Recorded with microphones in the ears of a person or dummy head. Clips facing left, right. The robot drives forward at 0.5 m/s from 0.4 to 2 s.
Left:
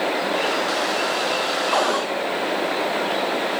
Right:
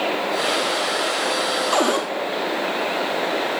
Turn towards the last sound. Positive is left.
turn(degrees=-35)  # may be behind; listen again after turning